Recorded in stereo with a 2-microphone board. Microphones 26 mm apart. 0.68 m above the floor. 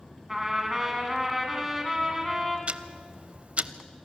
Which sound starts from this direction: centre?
A trumpet, at 0.3 s.